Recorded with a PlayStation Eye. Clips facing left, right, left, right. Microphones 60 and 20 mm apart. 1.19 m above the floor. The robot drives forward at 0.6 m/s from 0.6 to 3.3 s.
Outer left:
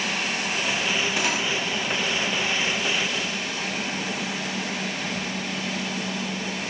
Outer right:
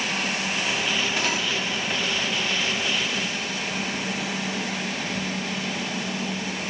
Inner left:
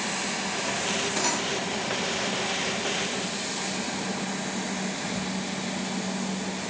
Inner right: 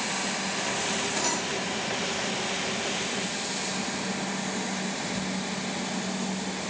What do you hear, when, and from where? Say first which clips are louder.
1.2 s cutlery clinking: outer left 1 dB, inner left 1 dB; 10° left (ahead or behind), 1.3 m